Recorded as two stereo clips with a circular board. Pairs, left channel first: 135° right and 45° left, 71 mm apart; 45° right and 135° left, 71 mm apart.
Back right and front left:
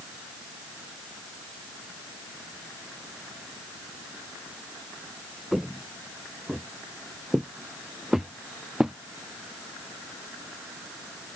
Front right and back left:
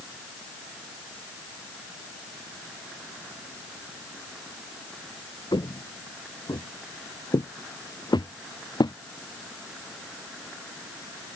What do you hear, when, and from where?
5.5 s footsteps: 45° right; by 9.0 s 35° right